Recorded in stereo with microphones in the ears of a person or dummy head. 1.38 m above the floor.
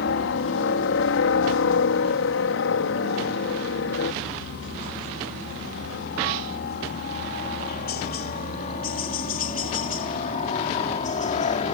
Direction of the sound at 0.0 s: 60° left (ahead or behind).